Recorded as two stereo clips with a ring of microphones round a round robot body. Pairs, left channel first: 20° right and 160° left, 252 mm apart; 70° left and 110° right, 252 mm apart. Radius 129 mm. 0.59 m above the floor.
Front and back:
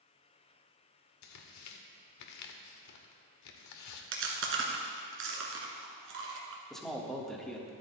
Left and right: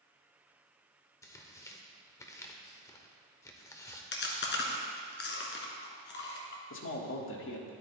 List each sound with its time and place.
1.2 s tearing paper: 10° right, 1.1 m
4.1 s chewing: 115° left, 1.8 m
6.7 s a man speaking: 65° left, 1.6 m